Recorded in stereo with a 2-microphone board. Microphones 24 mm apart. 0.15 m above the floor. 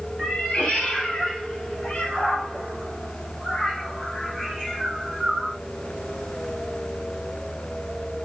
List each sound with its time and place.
0.2 s a cat meowing: 70° left (ahead or behind), 2.5 m; by 5.6 s 10° right (ahead or behind), 1.4 m